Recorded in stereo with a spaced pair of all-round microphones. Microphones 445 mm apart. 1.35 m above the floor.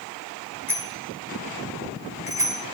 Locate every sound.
0.7 s a bicycle bell: 60° right (ahead or behind), 6 m; by 2.6 s 65° right (ahead or behind), 7 m